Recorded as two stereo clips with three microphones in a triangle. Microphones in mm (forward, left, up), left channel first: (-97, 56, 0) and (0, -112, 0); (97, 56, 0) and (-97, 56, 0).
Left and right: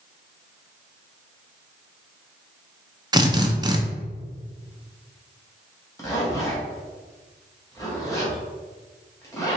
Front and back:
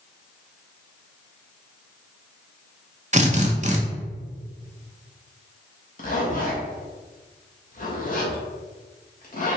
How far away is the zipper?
About 1.2 m.